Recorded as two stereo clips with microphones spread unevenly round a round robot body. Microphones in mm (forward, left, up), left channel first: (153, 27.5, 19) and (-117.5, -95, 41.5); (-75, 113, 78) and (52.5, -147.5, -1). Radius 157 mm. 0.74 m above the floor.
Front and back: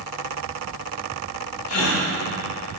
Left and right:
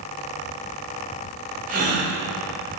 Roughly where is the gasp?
Ahead.